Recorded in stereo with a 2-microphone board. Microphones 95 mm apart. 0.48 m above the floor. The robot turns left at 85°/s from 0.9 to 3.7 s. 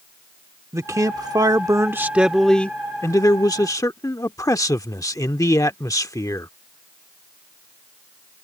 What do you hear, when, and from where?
0.7 s a man speaking: 55° right; by 6.5 s 70° left